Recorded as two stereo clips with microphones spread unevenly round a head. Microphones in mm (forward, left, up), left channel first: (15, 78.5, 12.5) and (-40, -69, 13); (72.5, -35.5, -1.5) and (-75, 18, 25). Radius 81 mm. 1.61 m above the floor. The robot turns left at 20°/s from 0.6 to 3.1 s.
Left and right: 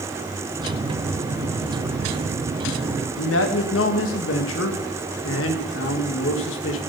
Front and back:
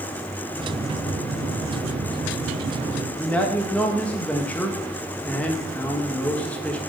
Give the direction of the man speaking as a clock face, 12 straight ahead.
10 o'clock.